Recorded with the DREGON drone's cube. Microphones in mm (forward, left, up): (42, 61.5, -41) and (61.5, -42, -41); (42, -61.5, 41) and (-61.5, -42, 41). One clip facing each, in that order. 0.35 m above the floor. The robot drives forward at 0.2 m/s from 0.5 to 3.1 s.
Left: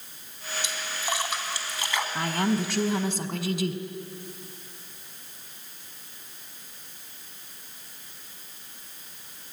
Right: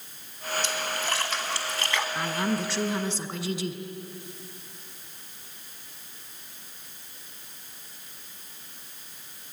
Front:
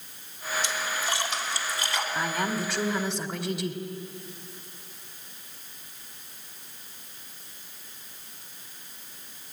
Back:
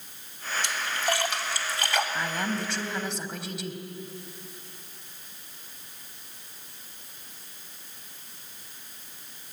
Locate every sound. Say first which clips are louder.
0.6 s a splash: even, back 4 dB; 175° left, 2 m
2.1 s a woman speaking: left 4 dB, front 1 dB; 75° left, 1.9 m; by 3.8 s 80° left, 1.8 m